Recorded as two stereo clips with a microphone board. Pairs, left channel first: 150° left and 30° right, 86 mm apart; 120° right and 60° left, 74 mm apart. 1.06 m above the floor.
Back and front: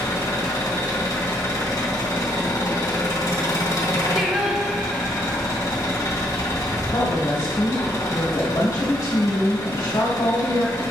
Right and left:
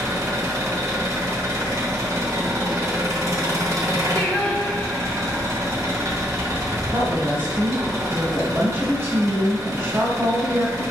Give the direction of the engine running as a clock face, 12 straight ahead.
9 o'clock.